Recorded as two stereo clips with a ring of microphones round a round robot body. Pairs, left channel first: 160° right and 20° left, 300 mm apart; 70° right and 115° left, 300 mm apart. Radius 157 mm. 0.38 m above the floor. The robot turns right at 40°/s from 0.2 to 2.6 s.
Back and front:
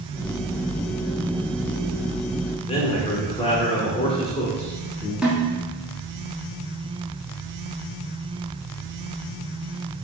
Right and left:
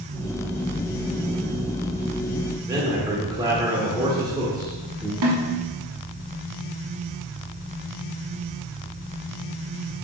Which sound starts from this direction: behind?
A man speaking, at 2.6 s.